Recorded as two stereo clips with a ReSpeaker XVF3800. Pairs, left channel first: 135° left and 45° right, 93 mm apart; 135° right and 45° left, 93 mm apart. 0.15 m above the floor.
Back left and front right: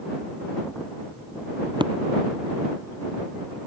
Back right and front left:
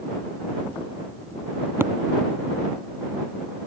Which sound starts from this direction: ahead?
Tapping, at 1.8 s.